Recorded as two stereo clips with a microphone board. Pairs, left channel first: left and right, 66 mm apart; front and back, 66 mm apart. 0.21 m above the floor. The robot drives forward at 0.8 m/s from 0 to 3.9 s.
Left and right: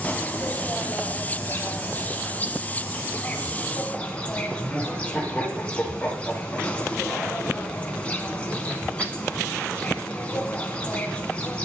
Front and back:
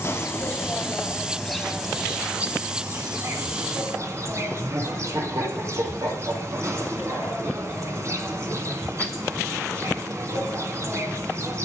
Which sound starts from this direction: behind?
Laughter, at 4.6 s.